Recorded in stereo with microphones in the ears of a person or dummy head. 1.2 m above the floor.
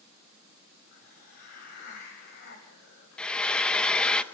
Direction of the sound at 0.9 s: 55° left (ahead or behind).